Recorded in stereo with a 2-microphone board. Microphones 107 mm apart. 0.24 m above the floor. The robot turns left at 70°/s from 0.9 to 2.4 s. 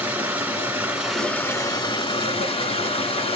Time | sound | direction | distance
0.0 | running water | 160° right | 1.6 m